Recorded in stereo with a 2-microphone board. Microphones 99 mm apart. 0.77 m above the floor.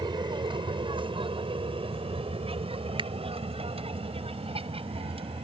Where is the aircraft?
50° right (ahead or behind); by 5.4 s 70° right (ahead or behind).